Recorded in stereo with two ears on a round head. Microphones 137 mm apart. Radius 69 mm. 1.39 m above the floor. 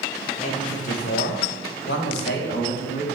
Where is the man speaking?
40° left (ahead or behind), 1.3 m; by 3.0 s 55° left (ahead or behind), 2.0 m.